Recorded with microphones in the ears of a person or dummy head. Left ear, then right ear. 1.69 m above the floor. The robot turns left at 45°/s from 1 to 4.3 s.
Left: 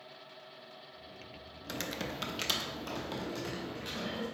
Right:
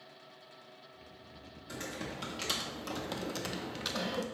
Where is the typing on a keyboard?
45° left, 0.6 m; by 4.2 s 70° right, 0.6 m.